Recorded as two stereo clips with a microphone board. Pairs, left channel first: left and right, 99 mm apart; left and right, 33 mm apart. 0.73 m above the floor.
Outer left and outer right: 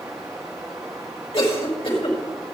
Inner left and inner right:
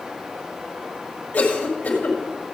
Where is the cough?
75° left (ahead or behind), 4.5 m.